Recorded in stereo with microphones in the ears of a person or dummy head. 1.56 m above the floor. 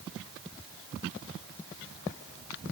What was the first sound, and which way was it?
Only background noise.